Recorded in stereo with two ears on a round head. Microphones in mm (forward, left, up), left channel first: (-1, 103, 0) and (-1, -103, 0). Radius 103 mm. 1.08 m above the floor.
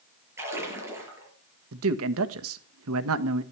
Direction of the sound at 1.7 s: 65° right (ahead or behind).